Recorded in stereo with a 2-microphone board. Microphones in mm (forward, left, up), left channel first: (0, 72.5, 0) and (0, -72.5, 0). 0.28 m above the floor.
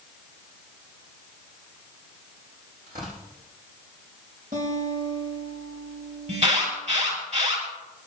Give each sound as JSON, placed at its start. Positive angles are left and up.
{"t": 2.9, "sound": "tearing paper", "side_deg": -85, "distance_m": 6.5}
{"t": 4.5, "sound": "a guitar", "side_deg": -70, "distance_m": 5.0}
{"t": 6.3, "sound": "an alarm", "side_deg": -55, "distance_m": 6.5}